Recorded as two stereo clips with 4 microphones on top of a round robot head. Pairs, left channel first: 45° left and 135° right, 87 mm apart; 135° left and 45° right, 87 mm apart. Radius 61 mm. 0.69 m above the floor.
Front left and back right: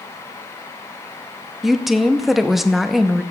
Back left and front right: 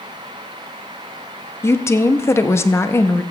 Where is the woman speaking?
140° left, 0.9 m.